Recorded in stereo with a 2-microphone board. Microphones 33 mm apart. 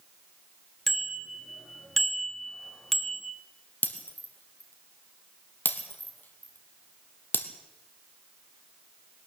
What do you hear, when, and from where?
0.9 s a bicycle bell: 10° left (ahead or behind), 2.5 m; by 3.3 s 5° left (ahead or behind), 1.3 m
3.8 s breaking glass: 70° left (ahead or behind), 2.5 m